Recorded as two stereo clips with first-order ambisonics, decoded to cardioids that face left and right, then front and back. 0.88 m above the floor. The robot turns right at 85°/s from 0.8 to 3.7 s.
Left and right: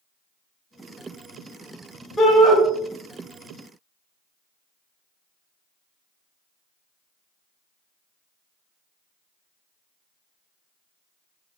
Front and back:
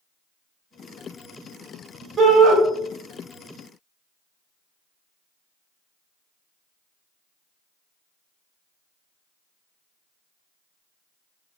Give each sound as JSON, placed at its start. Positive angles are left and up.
{"t": 2.2, "sound": "a shout", "azimuth_deg": 155, "distance_m": 0.6}